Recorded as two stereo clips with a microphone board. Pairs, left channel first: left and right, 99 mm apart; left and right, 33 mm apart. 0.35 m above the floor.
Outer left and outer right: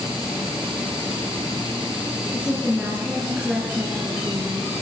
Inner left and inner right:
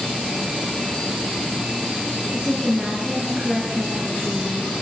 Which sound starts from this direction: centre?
A woman speaking, at 2.3 s.